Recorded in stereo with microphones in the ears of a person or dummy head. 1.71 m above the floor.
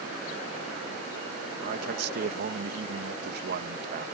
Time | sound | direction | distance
1.6 | a man speaking | 65° right (ahead or behind) | ?